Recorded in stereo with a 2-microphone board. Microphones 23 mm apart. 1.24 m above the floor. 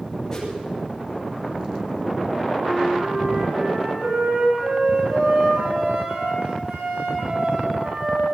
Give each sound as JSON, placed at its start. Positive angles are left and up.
{"t": 0.3, "sound": "a whoosh", "side_deg": 15, "distance_m": 9.5}
{"t": 2.5, "sound": "a flute", "side_deg": -85, "distance_m": 8.5}